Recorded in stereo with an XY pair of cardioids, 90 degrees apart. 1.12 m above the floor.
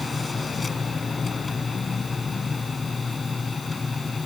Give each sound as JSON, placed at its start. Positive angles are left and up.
{"t": 0.0, "sound": "a machine running", "azimuth_deg": 30}